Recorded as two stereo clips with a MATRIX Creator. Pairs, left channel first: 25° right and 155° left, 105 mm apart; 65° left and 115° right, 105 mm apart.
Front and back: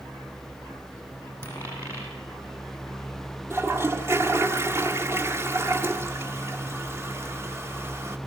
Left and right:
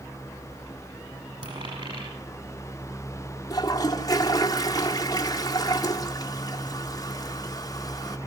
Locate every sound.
1.4 s a dropped coin: 90° right, 7.5 m
3.5 s a toilet flushing: 100° left, 1.5 m